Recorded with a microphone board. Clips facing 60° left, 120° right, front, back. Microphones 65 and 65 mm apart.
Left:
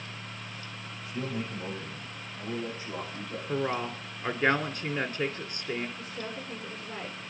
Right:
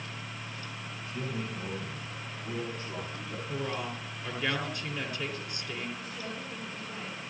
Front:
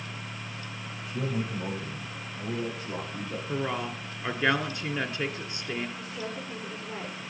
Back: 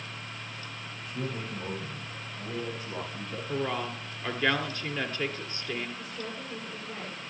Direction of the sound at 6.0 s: 15° left.